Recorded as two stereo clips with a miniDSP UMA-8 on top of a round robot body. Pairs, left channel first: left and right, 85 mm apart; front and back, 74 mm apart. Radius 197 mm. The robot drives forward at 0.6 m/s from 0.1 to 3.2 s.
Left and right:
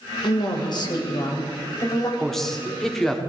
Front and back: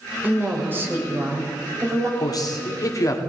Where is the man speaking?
5° left, 2 m.